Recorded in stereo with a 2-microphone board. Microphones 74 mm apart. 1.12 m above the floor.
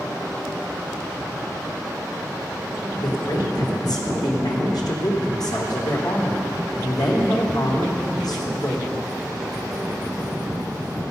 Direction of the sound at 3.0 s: 70° left (ahead or behind).